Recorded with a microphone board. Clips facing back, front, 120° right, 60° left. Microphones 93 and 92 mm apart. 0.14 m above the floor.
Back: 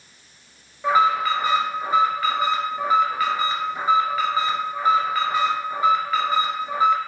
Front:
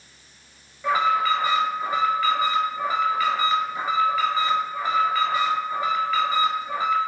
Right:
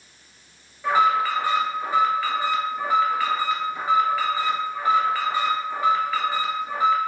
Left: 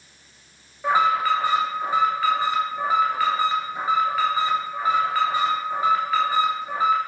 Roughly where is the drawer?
I don't hear a drawer.